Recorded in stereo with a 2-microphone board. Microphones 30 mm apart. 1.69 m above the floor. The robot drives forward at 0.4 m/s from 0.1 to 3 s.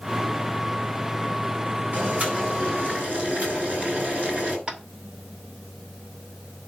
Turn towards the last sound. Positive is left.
turn(degrees=-40)  # may be behind; listen again after turning